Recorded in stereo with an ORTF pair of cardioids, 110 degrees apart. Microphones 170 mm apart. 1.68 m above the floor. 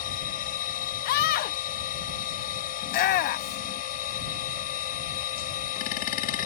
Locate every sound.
0.0 s a machine running: 60° left
1.1 s a scream: 70° left
2.8 s a shout: 60° left